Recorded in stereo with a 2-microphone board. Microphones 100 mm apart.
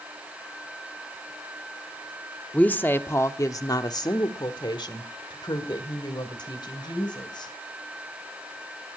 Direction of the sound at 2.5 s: 15° left (ahead or behind).